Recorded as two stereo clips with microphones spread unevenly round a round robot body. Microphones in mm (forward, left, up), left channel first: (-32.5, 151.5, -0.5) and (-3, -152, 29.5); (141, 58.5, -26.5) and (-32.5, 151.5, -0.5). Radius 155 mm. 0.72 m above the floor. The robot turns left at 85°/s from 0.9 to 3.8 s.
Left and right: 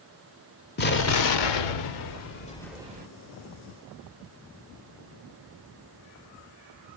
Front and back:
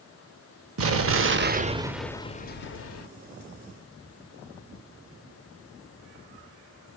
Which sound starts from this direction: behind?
An explosion, at 0.8 s.